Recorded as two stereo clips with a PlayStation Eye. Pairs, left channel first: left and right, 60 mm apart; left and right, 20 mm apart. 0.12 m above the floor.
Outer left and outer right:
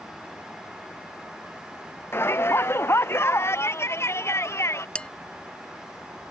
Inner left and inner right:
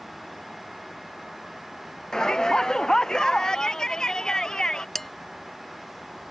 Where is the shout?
40° left (ahead or behind); by 4.8 s 50° left (ahead or behind).